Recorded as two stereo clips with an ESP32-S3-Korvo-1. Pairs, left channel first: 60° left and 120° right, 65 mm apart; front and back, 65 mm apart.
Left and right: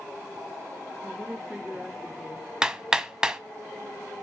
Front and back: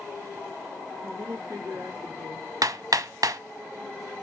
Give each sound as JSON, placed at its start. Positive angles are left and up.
{"t": 1.0, "sound": "a woman speaking", "azimuth_deg": 170, "distance_m": 5.0}
{"t": 2.6, "sound": "hammering", "azimuth_deg": 160, "distance_m": 0.9}